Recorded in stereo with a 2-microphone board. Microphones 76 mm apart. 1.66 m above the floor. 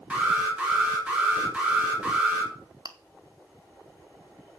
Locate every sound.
0.1 s an alarm: 15° right (ahead or behind), 4.5 m
2.9 s chewing: 55° right (ahead or behind), 1.0 m